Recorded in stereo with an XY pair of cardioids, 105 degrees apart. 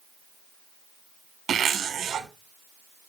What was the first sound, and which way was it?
A zipper, 55° right.